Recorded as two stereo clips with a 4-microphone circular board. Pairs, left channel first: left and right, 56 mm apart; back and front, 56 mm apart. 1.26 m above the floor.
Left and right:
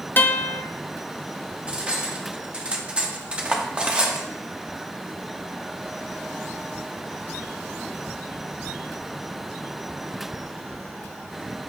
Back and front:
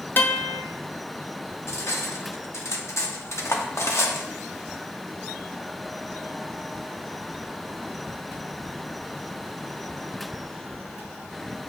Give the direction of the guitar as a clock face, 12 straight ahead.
7 o'clock.